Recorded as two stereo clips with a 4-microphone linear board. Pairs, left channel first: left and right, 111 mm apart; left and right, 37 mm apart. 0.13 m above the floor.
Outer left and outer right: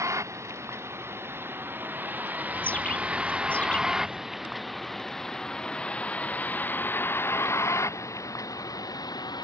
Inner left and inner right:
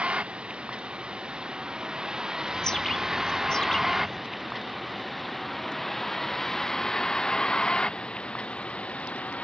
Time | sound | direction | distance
0.0 | a vehicle | 25° right (ahead or behind) | ?
2.5 | a bird | 10° left (ahead or behind) | ?